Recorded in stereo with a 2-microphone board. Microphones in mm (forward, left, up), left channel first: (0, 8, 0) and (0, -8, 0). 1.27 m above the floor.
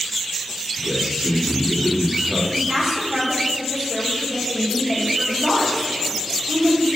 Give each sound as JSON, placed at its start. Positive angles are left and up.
{"t": 0.8, "sound": "a man speaking", "side_deg": -55, "distance_m": 3.0}
{"t": 2.5, "sound": "a woman speaking", "side_deg": -45, "distance_m": 3.0}